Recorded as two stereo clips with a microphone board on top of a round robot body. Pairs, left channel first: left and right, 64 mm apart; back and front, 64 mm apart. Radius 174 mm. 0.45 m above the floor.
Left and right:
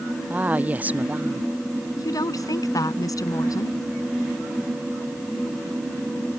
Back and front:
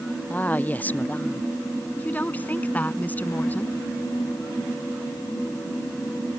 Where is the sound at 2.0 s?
115° left.